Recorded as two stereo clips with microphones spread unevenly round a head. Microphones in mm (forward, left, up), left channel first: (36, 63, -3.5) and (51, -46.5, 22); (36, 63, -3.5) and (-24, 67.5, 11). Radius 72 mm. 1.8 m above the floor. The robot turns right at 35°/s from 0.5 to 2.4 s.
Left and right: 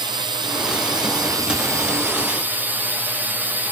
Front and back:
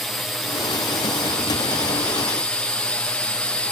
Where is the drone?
65° right; by 3.7 s straight ahead.